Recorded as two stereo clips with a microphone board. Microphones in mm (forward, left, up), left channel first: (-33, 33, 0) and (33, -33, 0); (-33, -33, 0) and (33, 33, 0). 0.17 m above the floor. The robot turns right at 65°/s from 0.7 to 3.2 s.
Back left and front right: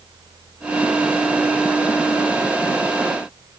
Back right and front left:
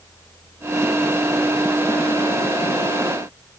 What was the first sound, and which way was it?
Only background noise.